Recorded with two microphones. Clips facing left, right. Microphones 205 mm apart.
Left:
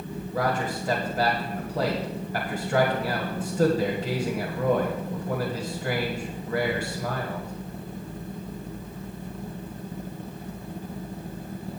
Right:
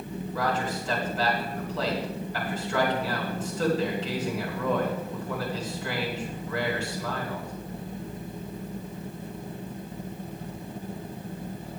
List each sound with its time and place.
0.3 s a man speaking: 50° left (ahead or behind), 1.9 m